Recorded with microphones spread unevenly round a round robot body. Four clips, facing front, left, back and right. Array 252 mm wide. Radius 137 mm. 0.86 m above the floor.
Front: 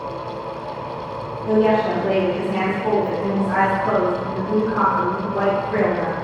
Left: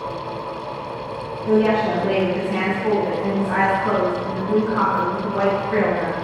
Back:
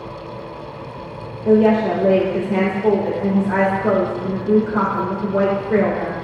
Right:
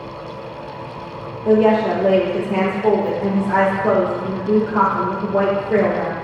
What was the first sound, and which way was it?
A woman speaking, 140° right.